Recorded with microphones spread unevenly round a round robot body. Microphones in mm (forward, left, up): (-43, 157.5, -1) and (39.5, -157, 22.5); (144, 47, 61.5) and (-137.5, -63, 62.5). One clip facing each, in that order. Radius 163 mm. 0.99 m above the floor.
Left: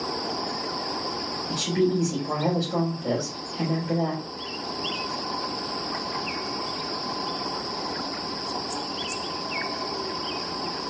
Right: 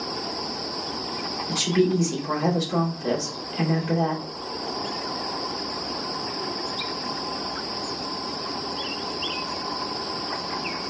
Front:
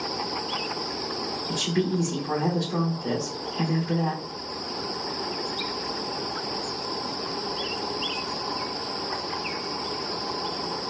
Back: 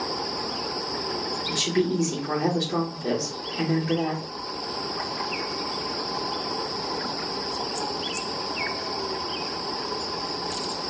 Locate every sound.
1.5 s a woman speaking: 105° right, 2.5 m